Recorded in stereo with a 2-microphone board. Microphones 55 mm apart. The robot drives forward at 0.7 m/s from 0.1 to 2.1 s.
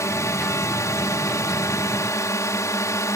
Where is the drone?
65° left (ahead or behind).